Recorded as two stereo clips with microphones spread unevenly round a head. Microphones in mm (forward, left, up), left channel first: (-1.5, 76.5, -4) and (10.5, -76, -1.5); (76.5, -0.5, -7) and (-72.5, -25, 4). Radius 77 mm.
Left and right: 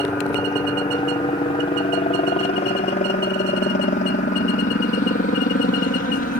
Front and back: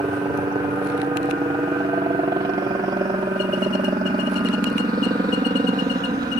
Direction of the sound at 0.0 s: 145° left.